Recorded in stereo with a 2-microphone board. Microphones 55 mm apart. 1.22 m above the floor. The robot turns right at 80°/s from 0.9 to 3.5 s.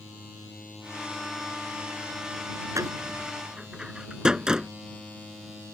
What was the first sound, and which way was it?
A door slam, 70° right (ahead or behind).